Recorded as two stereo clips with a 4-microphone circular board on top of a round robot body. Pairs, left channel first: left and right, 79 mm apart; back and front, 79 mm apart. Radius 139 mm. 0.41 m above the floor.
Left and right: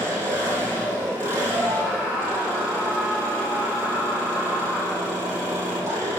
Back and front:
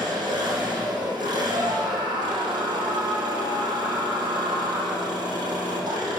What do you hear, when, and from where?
0.0 s an engine running: 30° right, 6 m
1.5 s a scream: 5° right, 4.5 m